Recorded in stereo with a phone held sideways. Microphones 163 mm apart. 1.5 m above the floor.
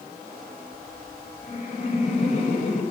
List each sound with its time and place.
1.4 s laughter: 40° left (ahead or behind), 6.5 m